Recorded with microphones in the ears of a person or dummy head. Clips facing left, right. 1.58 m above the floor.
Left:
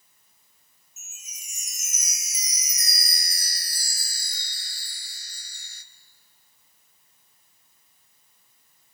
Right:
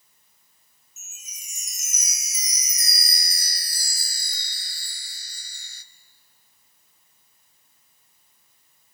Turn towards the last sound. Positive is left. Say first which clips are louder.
# right 1 dB
turn(degrees=-80)